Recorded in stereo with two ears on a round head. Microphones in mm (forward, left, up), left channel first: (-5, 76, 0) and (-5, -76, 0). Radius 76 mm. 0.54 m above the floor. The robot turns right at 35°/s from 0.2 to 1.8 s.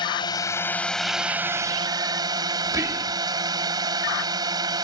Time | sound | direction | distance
0.0 | a drone | 150° left | ?
2.6 | whispering | 15° right (ahead or behind) | ?